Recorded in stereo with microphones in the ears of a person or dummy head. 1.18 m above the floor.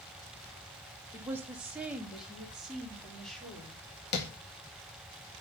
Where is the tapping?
50° left (ahead or behind), 1.8 m.